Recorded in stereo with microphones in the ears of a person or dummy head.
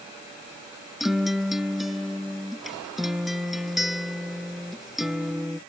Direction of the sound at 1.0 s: Centre (ahead or behind).